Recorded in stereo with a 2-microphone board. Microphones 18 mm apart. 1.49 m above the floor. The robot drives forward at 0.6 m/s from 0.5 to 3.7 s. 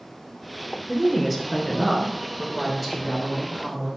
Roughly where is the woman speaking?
Centre.